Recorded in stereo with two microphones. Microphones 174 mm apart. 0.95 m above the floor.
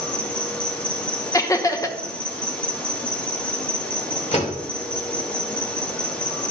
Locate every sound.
0.0 s an insect: 5° left (ahead or behind), 1.3 m
1.3 s laughter: 20° left (ahead or behind), 0.8 m
4.3 s a door slam: 40° left (ahead or behind), 2.5 m